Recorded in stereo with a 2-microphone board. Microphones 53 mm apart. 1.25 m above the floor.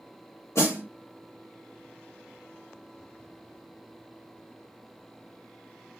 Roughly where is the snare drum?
Left.